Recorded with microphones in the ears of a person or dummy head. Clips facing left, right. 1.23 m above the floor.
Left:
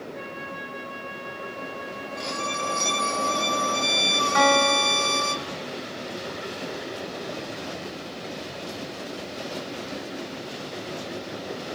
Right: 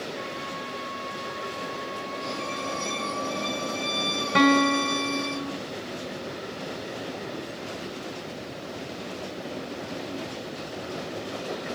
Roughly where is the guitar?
Right.